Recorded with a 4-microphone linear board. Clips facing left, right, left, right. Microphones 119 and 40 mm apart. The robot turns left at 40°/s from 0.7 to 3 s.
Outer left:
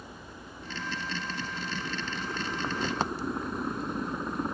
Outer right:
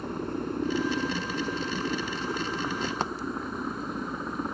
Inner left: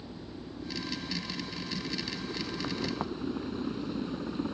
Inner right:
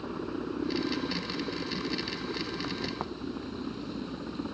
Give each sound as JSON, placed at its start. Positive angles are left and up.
{"t": 0.0, "sound": "a helicopter", "azimuth_deg": -85}